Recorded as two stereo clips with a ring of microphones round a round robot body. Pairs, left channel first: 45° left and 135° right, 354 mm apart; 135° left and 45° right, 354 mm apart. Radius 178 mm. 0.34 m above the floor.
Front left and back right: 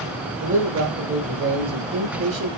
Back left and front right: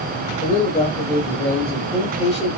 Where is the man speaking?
165° right, 1.1 m.